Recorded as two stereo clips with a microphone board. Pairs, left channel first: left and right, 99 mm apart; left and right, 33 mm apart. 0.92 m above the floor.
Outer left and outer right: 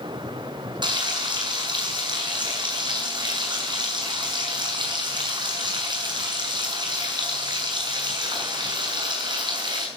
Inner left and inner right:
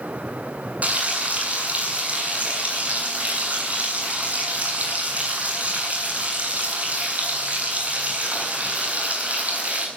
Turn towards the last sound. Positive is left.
turn(degrees=-50)  # may be behind; listen again after turning